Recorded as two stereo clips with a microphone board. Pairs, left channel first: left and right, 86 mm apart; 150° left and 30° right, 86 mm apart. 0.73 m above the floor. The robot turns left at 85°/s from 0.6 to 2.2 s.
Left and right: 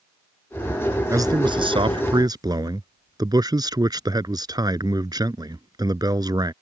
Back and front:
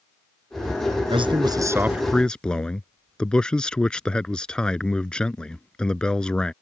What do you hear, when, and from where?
1.1 s a man speaking: 35° right; by 6.5 s 130° right